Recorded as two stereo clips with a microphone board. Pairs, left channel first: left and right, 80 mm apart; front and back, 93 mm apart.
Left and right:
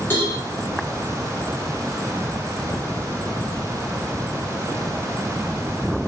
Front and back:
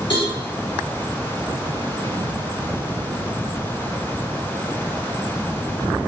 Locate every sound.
0.1 s a cowbell: 35° left, 1.7 m